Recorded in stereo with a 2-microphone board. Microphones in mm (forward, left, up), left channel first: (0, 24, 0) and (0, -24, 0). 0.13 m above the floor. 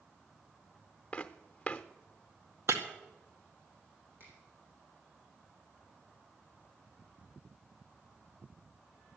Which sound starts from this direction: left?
Footsteps, at 1.1 s.